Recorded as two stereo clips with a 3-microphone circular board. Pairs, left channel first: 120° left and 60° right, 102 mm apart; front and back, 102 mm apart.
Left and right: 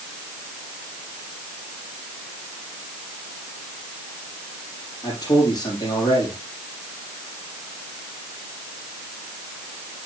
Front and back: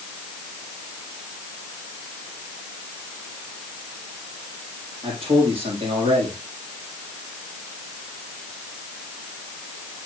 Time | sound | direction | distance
5.0 | a man speaking | 165° left | 4.5 m